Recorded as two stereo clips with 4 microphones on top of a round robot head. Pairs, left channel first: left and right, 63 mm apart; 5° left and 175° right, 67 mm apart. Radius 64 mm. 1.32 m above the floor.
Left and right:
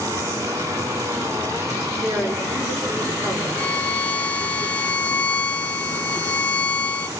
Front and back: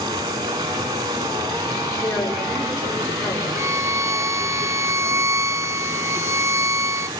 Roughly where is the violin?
Behind left.